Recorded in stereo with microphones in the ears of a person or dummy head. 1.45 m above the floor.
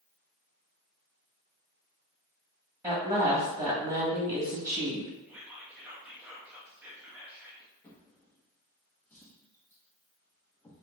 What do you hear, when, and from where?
2.8 s a woman speaking: 10° right (ahead or behind), 1.3 m
5.3 s whispering: centre (ahead or behind), 0.8 m
7.8 s a drawer: 5° left (ahead or behind), 0.9 m